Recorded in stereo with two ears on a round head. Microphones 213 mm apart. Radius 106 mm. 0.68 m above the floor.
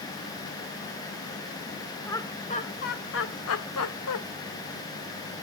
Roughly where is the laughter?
Centre.